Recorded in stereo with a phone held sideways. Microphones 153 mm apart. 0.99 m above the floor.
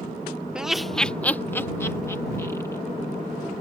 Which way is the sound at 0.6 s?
5° right (ahead or behind).